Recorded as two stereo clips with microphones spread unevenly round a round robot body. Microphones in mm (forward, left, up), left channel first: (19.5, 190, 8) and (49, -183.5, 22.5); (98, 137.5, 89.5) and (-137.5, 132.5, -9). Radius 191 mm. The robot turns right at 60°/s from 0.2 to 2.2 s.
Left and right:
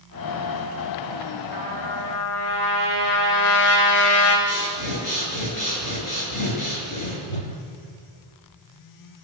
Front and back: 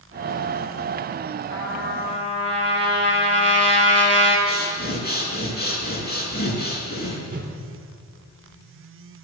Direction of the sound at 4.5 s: 55° left.